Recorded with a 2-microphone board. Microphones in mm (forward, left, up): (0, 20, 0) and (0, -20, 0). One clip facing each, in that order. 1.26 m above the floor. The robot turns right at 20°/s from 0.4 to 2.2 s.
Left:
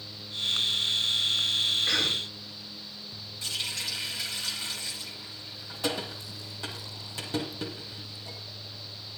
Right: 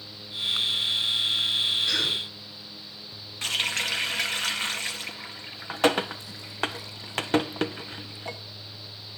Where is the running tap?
55° right (ahead or behind), 0.9 m.